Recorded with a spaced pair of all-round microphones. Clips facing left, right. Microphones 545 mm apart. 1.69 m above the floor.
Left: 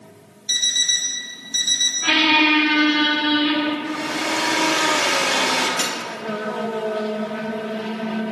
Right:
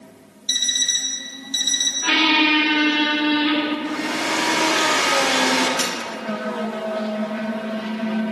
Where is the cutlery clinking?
5° left (ahead or behind), 1.3 m.